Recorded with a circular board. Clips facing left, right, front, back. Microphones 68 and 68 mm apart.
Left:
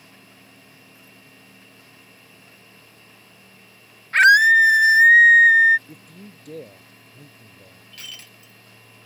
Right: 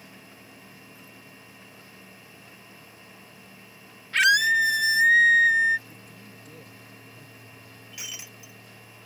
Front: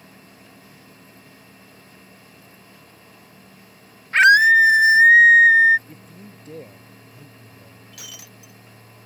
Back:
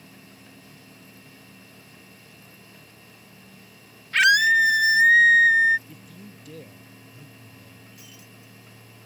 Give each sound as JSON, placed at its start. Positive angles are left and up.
{"t": 4.1, "sound": "a scream", "azimuth_deg": 50}
{"t": 5.9, "sound": "a man speaking", "azimuth_deg": 60}
{"t": 7.9, "sound": "breaking glass", "azimuth_deg": -15}